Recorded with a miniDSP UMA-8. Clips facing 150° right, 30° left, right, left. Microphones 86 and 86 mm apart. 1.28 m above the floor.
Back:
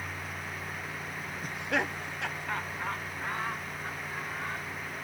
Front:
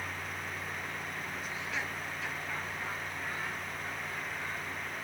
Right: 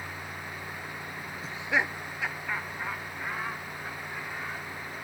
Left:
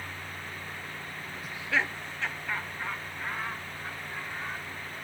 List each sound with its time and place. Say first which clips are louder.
1.4 s laughter: back 10 dB, right 1 dB; 140° right, 0.5 m; by 5.0 s 175° right, 4.5 m